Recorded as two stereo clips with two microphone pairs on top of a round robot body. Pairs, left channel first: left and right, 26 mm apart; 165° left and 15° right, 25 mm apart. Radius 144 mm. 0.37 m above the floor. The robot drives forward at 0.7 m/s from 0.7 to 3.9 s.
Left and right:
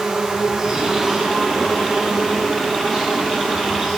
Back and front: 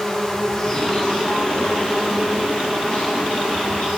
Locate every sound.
0.0 s an insect: 140° right, 1.4 m; by 4.0 s 165° right, 3.5 m